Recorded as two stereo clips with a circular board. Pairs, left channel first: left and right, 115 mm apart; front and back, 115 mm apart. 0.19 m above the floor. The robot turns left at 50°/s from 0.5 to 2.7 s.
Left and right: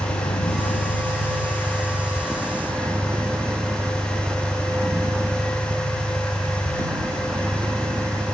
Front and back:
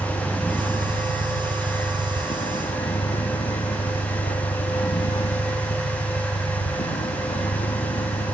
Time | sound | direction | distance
0.0 | a vehicle | 85° left | ?